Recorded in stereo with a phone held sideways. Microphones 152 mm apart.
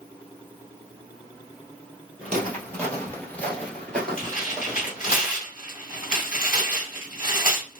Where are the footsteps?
10° left (ahead or behind), 1.8 m; by 5.2 s 5° left (ahead or behind), 1.9 m.